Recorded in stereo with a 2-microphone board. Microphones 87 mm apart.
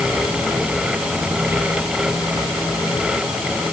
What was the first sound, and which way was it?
Only background noise.